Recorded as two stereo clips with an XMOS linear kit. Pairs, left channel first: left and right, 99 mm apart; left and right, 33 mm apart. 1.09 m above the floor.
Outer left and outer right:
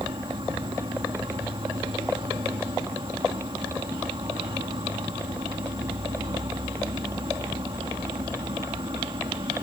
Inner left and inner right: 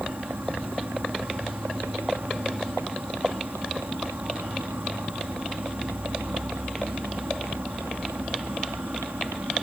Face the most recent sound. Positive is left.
turn(degrees=-65)  # may be behind; listen again after turning